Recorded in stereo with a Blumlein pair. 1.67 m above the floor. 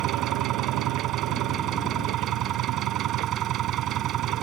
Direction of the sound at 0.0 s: 30° right.